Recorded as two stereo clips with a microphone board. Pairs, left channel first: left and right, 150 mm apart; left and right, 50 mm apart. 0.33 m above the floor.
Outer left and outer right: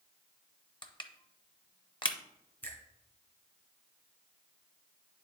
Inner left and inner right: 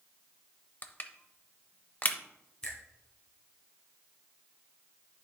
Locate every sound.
0.8 s crushing: 30° left (ahead or behind), 0.6 m
2.6 s a finger snap: 10° left (ahead or behind), 2 m